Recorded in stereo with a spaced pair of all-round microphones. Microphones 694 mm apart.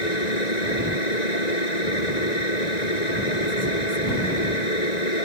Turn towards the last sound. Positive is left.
turn(degrees=75)  # may be behind; listen again after turning